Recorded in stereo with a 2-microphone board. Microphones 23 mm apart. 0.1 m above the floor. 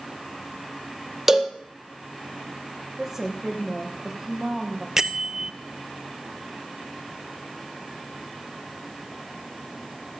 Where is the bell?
20° right (ahead or behind), 0.8 m.